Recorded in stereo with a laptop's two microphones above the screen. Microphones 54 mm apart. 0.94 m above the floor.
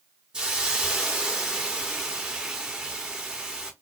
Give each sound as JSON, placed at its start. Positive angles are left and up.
{"t": 0.3, "sound": "a hiss", "side_deg": -15, "distance_m": 0.8}